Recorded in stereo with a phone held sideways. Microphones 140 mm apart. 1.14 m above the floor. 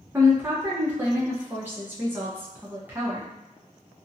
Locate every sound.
0.1 s a woman speaking: 15° right (ahead or behind), 0.7 m